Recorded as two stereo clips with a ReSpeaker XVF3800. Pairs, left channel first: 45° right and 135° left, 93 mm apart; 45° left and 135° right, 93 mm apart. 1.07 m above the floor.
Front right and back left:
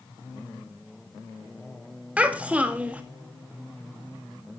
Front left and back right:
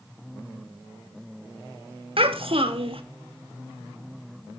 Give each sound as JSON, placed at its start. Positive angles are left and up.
{"t": 2.2, "sound": "a child speaking", "azimuth_deg": -150, "distance_m": 1.5}